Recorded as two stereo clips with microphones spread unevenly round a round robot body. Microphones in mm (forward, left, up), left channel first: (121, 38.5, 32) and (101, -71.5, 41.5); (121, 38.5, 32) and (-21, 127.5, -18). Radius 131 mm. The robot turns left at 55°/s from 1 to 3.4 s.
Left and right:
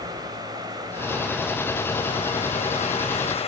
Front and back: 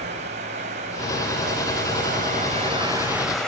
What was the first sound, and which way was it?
Running water, 165° right.